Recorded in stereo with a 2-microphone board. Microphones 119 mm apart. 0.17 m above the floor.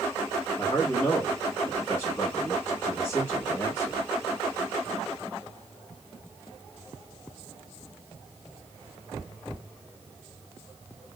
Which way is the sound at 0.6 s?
20° left (ahead or behind).